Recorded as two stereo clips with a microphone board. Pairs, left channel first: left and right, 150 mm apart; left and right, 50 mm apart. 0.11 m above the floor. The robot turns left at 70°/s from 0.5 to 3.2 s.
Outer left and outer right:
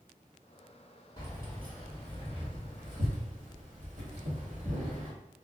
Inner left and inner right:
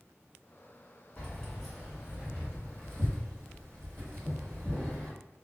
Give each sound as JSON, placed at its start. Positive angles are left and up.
{"t": 1.2, "sound": "keys jangling", "side_deg": 35, "distance_m": 1.9}